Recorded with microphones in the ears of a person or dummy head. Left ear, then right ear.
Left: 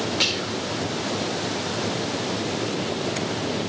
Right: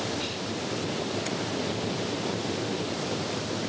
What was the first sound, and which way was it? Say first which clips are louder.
Whispering: left 9 dB; 70° left (ahead or behind).